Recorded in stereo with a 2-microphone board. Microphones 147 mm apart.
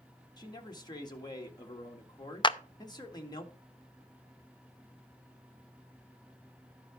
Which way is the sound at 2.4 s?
30° left (ahead or behind).